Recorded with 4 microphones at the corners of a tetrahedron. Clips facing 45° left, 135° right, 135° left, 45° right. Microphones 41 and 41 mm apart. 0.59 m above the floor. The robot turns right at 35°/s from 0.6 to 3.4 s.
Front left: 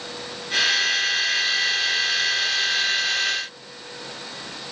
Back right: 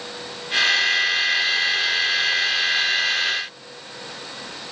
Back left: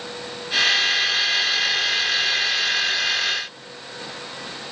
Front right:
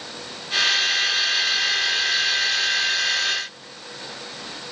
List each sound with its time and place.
Only background noise.